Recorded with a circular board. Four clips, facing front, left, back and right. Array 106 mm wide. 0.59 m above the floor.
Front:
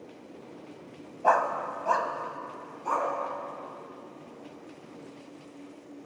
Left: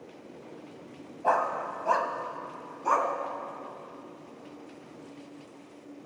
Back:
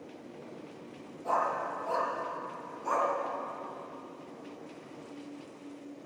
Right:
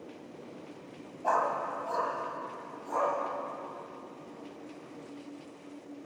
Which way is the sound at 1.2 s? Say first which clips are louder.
Left 2 dB, front 6 dB; 15° left.